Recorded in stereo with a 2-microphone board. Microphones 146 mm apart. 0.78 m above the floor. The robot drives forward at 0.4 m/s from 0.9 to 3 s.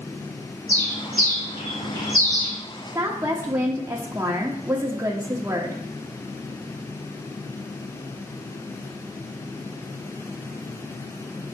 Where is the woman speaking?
20° right (ahead or behind), 1.1 m.